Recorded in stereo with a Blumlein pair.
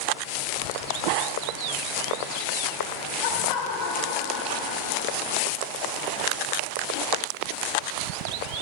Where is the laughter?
50° left, 4 m; by 5.0 s 30° left, 4 m.